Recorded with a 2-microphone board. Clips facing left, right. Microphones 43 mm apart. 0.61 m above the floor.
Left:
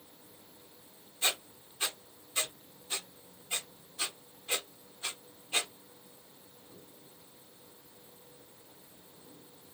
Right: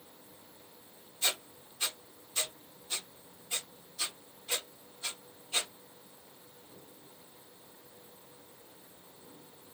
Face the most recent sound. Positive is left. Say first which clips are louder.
# left 1 dB
turn(degrees=30)  # may be behind; listen again after turning